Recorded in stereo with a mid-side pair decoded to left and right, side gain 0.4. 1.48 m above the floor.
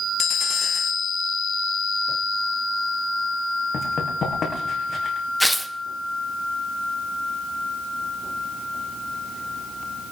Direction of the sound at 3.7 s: 55° left.